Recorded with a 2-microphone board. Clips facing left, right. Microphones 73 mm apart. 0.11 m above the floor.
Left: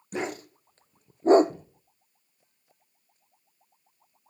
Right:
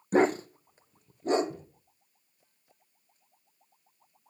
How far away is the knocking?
About 3.5 m.